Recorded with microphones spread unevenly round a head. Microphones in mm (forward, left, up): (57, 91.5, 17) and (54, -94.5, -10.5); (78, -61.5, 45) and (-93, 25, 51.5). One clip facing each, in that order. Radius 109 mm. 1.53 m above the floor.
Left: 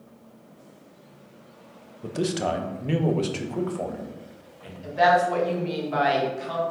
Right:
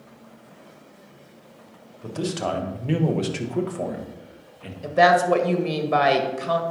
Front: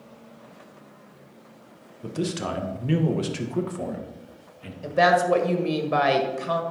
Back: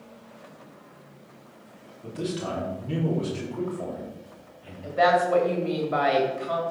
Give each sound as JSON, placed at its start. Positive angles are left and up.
{"t": 2.0, "sound": "a man speaking", "azimuth_deg": 20, "distance_m": 1.5}
{"t": 4.8, "sound": "a woman speaking", "azimuth_deg": -65, "distance_m": 1.7}